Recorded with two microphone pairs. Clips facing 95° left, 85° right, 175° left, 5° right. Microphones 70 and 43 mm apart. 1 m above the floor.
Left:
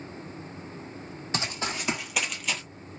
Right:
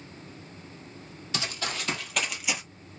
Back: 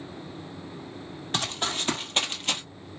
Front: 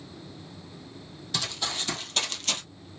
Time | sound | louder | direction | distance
1.3 | running footsteps | left 1 dB, back 3 dB | 145° left | 1.5 m